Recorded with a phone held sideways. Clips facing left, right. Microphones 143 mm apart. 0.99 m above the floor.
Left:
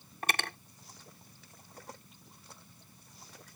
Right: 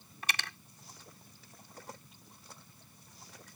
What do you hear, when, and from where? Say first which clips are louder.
0.2 s cutlery clinking: left 5 dB; 50° left (ahead or behind)